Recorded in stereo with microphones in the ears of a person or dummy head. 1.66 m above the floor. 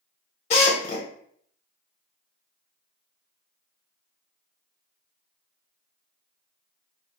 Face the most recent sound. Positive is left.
turn(degrees=50)  # may be behind; listen again after turning